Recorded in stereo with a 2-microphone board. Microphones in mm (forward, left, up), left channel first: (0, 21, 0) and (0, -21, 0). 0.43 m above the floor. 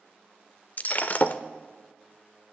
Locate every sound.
0.8 s breaking glass: 45° left (ahead or behind), 0.6 m